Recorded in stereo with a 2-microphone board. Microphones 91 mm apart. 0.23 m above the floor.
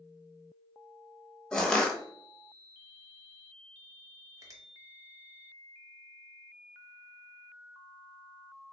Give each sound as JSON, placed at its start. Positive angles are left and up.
{"t": 1.5, "sound": "crushing", "side_deg": 10, "distance_m": 0.8}
{"t": 4.4, "sound": "a finger snap", "side_deg": -40, "distance_m": 1.0}